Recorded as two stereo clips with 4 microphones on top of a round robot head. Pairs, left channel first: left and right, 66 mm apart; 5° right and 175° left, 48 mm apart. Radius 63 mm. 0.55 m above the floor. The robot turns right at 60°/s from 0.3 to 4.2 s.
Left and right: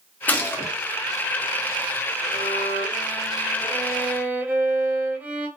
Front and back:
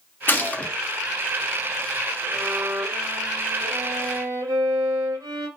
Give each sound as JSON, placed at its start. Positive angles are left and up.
{"t": 0.3, "sound": "a gunshot", "azimuth_deg": 30, "distance_m": 0.7}
{"t": 2.3, "sound": "a violin", "azimuth_deg": 90, "distance_m": 0.6}